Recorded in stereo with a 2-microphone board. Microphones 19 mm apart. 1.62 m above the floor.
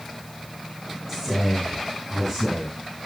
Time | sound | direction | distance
1.1 | a man speaking | 5° right (ahead or behind) | 7.5 m